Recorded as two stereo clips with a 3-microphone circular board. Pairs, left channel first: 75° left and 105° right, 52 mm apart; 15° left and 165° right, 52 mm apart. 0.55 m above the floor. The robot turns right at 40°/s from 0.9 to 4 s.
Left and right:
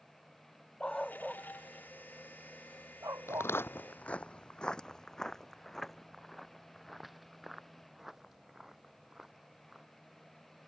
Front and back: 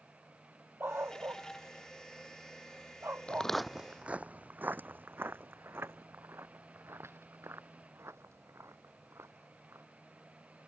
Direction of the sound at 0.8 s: 150° left.